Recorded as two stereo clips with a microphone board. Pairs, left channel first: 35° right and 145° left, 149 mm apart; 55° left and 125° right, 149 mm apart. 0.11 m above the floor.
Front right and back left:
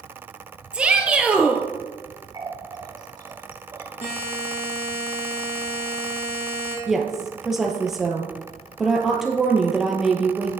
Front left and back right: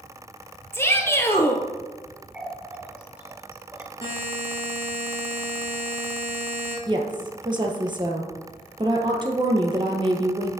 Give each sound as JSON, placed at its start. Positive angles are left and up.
{"t": 0.7, "sound": "a shout", "azimuth_deg": 80, "distance_m": 1.1}
{"t": 2.3, "sound": "a running tap", "azimuth_deg": 160, "distance_m": 1.1}
{"t": 4.0, "sound": "a buzzer", "azimuth_deg": 10, "distance_m": 3.0}
{"t": 6.9, "sound": "a woman speaking", "azimuth_deg": -130, "distance_m": 1.4}